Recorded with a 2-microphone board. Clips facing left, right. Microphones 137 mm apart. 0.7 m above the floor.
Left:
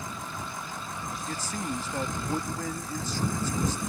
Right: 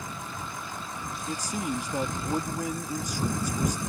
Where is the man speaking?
15° right (ahead or behind).